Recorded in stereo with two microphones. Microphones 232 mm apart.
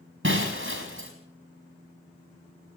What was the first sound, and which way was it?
Breaking glass, 55° right (ahead or behind).